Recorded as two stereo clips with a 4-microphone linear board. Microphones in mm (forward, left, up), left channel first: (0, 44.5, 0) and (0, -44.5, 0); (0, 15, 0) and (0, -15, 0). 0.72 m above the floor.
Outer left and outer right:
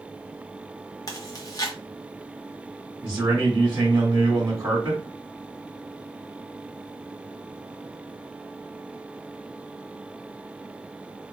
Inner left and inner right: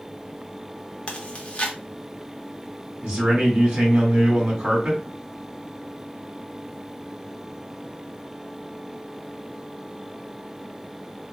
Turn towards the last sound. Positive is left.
turn(degrees=-40)  # may be behind; listen again after turning